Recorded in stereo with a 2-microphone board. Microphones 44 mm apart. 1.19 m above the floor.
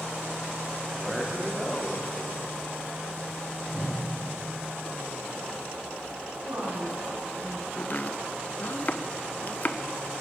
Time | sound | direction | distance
0.9 | a man speaking | 5° right (ahead or behind) | 2 m
3.7 | a whoosh | 15° right (ahead or behind) | 1.9 m
6.4 | a woman speaking | 70° right (ahead or behind) | 6.5 m
7.8 | chopping | 45° left (ahead or behind) | 0.5 m